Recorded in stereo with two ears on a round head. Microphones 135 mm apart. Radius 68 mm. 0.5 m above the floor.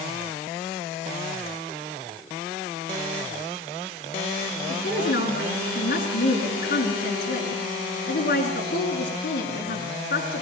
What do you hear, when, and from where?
4.7 s a woman speaking: 55° left (ahead or behind), 5.5 m